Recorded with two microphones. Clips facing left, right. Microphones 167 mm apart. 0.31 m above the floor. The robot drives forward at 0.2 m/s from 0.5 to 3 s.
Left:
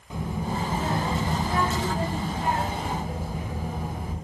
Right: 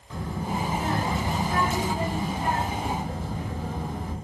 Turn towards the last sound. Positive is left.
turn(degrees=10)  # may be behind; listen again after turning